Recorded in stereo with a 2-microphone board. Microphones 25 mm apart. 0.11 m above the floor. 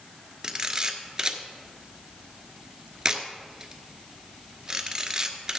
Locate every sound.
0.4 s a camera shutter: 25° right (ahead or behind), 1.3 m